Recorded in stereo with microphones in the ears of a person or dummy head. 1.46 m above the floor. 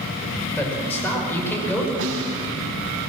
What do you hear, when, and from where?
0.6 s a man speaking: 10° left (ahead or behind), 6 m
2.0 s a snare drum: 70° right (ahead or behind), 4 m